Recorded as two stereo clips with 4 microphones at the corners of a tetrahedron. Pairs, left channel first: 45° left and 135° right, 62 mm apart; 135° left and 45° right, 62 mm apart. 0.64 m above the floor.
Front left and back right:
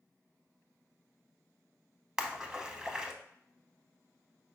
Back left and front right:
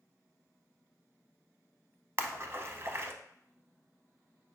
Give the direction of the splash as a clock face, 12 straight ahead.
2 o'clock.